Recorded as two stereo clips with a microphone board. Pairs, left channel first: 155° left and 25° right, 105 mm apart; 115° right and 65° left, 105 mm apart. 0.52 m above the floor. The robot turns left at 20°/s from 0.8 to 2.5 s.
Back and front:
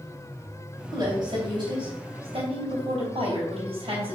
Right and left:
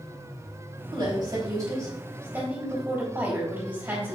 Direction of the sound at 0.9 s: 30° left.